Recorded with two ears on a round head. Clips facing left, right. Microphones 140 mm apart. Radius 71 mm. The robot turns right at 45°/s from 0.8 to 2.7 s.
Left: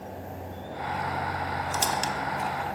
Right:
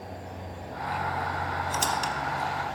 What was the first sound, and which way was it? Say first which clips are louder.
A squeak: left 1 dB; 5° left (ahead or behind).